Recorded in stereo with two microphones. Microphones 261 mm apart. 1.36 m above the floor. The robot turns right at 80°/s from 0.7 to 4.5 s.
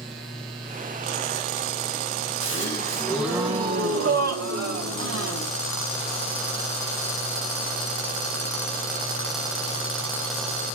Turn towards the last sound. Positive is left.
turn(degrees=-75)